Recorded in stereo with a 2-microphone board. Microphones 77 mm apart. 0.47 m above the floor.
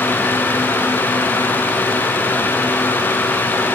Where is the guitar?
I don't hear a guitar.